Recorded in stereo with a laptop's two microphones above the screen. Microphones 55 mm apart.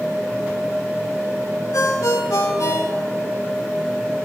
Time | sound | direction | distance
1.7 | a ringtone | 85° left | 2 m